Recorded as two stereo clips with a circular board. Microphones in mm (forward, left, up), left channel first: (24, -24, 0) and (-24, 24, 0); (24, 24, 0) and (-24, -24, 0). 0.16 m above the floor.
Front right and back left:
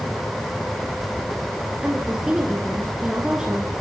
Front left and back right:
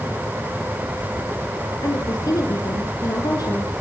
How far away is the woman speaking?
About 3 m.